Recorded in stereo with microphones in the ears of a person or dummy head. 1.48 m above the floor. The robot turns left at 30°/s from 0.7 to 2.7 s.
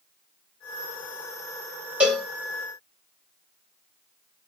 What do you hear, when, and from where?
2.0 s a cowbell: 5° right (ahead or behind), 0.6 m; by 2.3 s 5° left (ahead or behind), 0.6 m